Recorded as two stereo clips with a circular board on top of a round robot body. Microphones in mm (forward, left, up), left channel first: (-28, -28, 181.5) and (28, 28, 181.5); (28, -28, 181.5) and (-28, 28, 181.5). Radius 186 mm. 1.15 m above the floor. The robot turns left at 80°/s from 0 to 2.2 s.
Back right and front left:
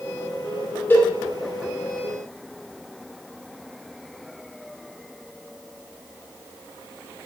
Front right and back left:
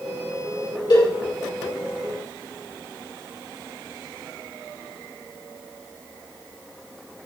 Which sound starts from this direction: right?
A cowbell, at 0.9 s.